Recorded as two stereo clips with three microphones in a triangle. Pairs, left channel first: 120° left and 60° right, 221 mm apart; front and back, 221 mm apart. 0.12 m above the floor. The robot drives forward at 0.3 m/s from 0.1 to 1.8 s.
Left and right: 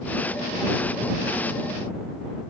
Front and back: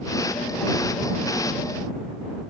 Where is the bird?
No bird in this recording.